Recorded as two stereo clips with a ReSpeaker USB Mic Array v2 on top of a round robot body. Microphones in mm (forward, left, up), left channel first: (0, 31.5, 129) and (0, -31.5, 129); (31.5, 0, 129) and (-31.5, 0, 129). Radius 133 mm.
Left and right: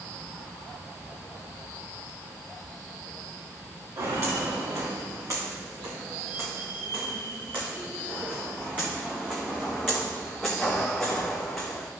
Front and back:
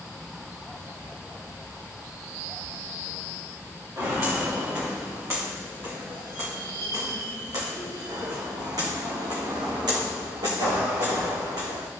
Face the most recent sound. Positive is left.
turn(degrees=175)